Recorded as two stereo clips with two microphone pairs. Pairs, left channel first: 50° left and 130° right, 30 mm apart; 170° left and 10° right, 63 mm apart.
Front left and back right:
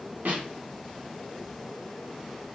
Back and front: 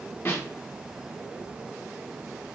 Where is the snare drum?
140° right, 1.9 m.